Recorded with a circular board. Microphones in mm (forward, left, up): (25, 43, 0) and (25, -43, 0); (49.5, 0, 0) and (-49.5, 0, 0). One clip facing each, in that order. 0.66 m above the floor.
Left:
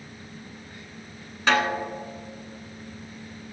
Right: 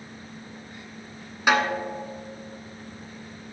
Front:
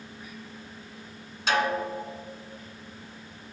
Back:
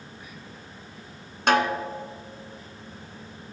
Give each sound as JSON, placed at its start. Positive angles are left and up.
{"t": 1.5, "sound": "a snare drum", "azimuth_deg": -165, "distance_m": 1.0}